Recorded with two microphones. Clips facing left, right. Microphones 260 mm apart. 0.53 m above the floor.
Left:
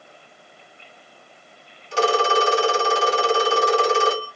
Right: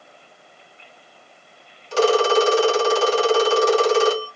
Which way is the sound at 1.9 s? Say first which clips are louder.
Right 4 dB; 80° right.